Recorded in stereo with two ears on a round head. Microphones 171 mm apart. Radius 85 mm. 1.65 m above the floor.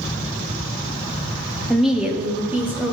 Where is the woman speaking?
Centre (ahead or behind), 0.7 m; by 2.9 s 10° right (ahead or behind), 1.4 m.